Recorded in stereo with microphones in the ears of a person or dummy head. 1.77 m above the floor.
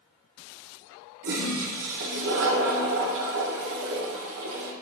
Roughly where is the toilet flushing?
Right.